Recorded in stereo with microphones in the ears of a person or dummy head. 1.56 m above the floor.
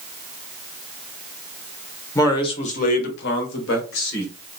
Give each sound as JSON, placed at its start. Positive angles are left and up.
{"t": 2.1, "sound": "a man speaking", "side_deg": 25, "distance_m": 0.8}